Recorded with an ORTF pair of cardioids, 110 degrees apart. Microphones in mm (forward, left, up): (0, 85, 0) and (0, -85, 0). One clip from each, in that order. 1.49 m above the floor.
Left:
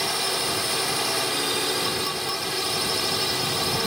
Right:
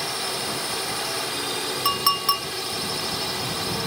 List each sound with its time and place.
0.0 s a drone: 25° left
1.9 s a clink: 60° right